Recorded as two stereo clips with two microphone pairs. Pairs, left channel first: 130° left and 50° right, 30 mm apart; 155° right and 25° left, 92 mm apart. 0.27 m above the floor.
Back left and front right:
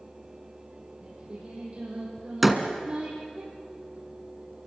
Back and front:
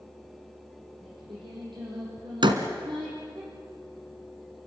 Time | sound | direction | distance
1.0 | singing | straight ahead | 10 m
2.4 | a door slam | 35° left | 2 m